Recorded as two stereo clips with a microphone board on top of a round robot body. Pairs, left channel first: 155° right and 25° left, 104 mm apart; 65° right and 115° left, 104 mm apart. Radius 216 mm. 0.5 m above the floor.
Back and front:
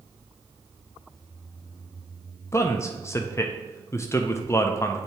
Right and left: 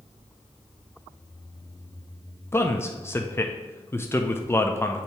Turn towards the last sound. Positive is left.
turn(degrees=-115)